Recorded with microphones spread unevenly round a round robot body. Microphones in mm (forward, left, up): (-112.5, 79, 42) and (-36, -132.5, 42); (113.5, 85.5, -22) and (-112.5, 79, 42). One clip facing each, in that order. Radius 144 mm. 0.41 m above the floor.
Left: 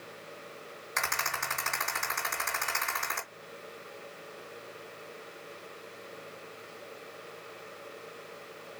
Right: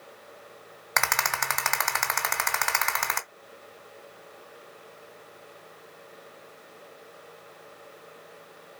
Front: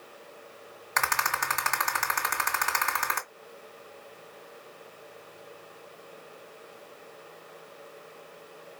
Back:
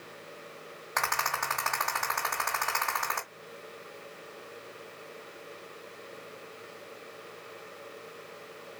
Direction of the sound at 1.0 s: 60° right.